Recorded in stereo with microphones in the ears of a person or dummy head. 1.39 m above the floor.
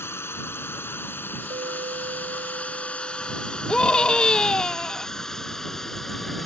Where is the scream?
15° left (ahead or behind).